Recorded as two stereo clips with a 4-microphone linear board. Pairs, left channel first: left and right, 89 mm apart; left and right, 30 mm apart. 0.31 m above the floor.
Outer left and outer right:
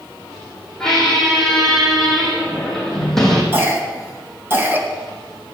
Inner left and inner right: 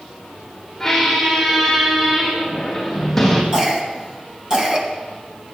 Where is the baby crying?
No baby crying in this recording.